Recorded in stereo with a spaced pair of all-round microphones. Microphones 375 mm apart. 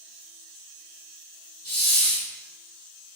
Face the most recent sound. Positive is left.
turn(degrees=40)  # may be behind; listen again after turning